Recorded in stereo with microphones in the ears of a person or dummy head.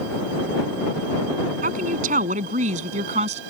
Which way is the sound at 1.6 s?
50° right (ahead or behind).